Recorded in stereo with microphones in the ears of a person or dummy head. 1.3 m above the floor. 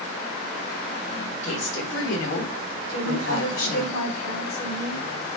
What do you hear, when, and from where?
1.4 s a woman speaking: 75° left (ahead or behind), 4 m; by 3.9 s 85° left, 5 m
2.9 s a woman speaking: 85° left, 4.5 m